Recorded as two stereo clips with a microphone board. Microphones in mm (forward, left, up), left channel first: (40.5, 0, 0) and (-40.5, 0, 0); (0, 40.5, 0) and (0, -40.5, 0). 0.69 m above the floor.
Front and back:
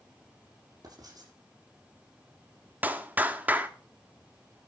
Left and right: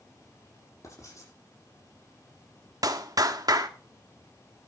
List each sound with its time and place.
0.8 s writing: 140° left, 8 m
2.8 s a clap: 115° right, 1.4 m